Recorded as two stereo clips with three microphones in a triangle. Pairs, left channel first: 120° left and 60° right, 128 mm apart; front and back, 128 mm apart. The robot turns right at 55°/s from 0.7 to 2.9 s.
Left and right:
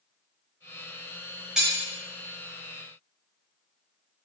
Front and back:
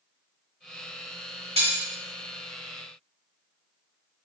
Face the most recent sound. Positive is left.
turn(degrees=-75)